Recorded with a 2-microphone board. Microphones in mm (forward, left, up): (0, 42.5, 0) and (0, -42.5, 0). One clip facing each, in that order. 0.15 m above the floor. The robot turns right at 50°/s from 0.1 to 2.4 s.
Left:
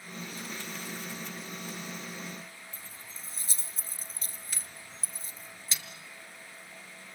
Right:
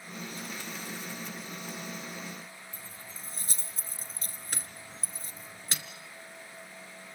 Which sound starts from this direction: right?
Keys jangling, at 2.7 s.